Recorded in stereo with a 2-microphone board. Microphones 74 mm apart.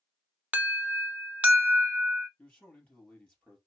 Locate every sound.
0.5 s an alarm: 20° right (ahead or behind), 0.8 m
2.4 s a man speaking: 15° left (ahead or behind), 3 m